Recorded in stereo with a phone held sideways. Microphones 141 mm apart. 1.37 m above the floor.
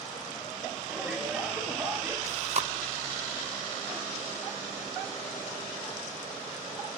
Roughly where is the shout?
Centre.